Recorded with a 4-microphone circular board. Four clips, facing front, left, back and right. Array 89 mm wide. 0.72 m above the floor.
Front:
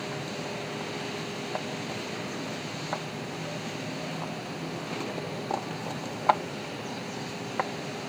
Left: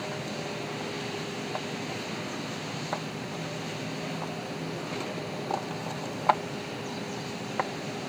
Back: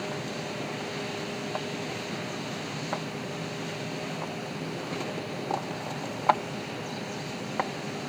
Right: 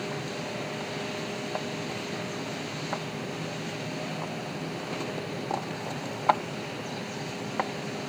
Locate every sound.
Only background noise.